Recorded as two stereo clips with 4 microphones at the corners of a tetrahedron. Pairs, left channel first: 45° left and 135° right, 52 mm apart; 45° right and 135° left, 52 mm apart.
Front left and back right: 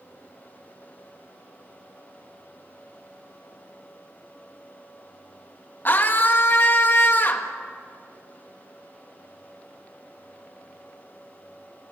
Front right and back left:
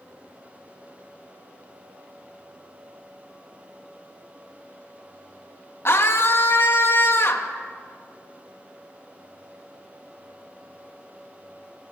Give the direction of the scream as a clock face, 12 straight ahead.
12 o'clock.